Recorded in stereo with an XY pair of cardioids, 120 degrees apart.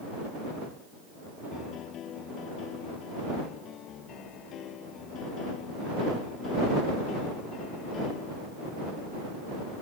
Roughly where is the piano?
Ahead left.